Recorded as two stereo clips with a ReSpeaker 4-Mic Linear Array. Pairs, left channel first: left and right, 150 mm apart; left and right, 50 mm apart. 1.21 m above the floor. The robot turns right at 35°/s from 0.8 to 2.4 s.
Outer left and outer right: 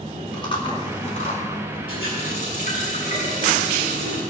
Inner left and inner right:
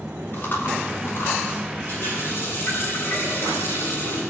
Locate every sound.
0.3 s chewing: 35° left (ahead or behind), 3 m; by 1.8 s 65° left (ahead or behind), 3 m
1.9 s a running tap: 35° left (ahead or behind), 7.5 m; by 4.2 s 55° left (ahead or behind), 7.5 m